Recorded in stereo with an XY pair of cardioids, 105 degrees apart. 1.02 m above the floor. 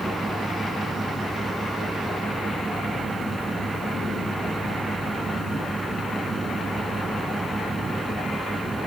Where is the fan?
20° right.